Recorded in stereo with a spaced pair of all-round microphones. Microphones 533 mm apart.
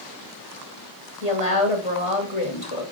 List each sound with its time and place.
1.2 s a woman speaking: 70° left (ahead or behind), 2.5 m